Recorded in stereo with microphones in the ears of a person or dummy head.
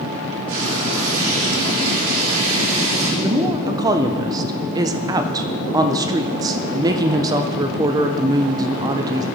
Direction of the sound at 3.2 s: 20° right (ahead or behind).